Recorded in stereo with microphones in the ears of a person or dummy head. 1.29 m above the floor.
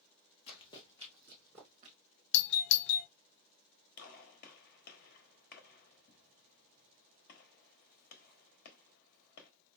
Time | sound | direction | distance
0.5 | running footsteps | 30° left (ahead or behind) | 1.8 m
2.3 | a doorbell | 60° left (ahead or behind) | 0.5 m
4.0 | a gunshot | 45° left (ahead or behind) | 1.2 m